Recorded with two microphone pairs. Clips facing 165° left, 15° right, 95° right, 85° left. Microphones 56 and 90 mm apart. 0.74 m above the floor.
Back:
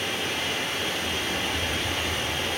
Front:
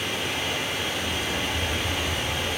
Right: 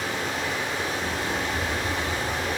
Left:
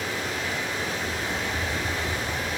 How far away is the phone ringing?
No phone ringing in this recording.